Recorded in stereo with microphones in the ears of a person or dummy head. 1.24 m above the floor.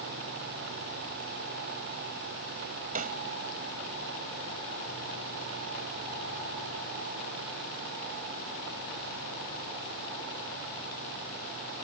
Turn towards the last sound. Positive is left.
turn(degrees=-40)  # may be behind; listen again after turning